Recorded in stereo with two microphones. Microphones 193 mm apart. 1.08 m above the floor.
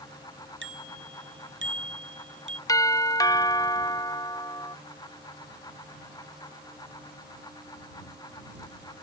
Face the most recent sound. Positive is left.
turn(degrees=20)  # may be behind; listen again after turning